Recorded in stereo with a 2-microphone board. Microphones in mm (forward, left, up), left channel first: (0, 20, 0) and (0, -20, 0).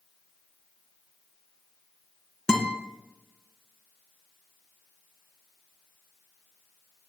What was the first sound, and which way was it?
A guitar, 20° left (ahead or behind).